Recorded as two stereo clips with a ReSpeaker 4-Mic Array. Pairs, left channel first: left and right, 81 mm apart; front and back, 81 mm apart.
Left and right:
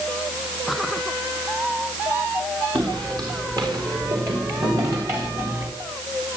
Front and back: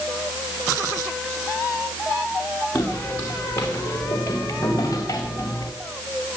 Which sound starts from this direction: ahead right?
Footsteps, at 2.8 s.